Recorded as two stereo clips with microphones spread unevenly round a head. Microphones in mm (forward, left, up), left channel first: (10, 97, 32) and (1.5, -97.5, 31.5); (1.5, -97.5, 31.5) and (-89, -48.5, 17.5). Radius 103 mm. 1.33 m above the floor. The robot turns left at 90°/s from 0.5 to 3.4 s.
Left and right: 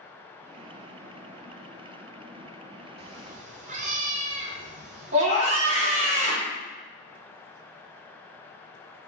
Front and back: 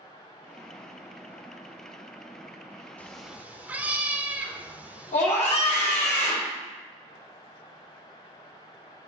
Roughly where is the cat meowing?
Right.